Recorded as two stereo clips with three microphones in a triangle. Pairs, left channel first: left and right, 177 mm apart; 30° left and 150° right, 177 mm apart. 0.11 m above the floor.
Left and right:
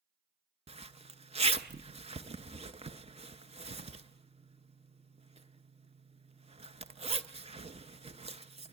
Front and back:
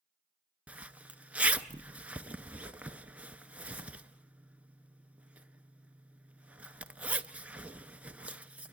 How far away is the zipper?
About 0.6 m.